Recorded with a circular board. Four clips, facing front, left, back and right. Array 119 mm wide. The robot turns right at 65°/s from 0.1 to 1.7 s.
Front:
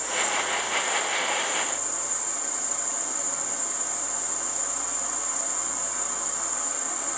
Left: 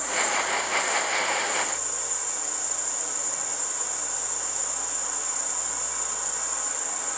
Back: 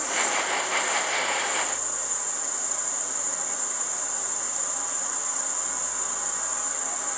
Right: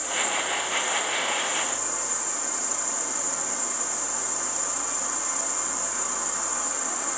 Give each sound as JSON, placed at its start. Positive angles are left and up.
{"t": 0.0, "sound": "an insect", "azimuth_deg": 170, "distance_m": 1.5}